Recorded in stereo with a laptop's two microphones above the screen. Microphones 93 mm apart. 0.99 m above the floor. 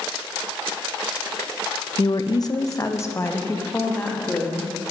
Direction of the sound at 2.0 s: 40° left (ahead or behind).